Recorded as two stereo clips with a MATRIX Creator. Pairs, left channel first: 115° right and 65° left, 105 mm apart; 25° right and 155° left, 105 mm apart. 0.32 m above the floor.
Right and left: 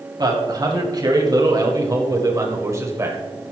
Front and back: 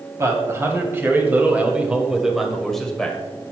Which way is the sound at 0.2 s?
105° left.